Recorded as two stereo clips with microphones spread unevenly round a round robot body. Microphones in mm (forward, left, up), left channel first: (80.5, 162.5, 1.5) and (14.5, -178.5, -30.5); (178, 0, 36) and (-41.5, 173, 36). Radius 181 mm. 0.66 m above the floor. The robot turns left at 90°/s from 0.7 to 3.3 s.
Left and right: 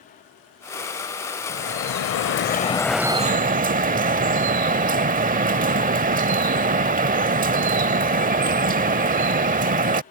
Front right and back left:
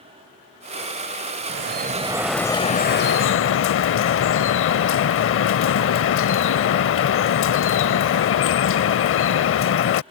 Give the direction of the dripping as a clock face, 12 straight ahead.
8 o'clock.